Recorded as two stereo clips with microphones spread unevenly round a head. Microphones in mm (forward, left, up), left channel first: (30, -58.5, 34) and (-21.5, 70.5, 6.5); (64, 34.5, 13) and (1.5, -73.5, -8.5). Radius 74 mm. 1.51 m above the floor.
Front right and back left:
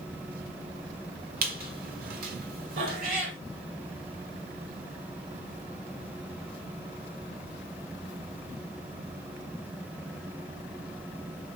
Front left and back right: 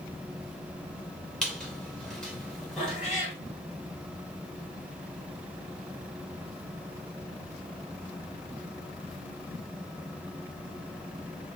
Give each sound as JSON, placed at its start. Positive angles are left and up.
{"t": 1.4, "sound": "a squeak", "azimuth_deg": 145, "distance_m": 1.3}
{"t": 2.8, "sound": "a cat meowing", "azimuth_deg": 145, "distance_m": 3.5}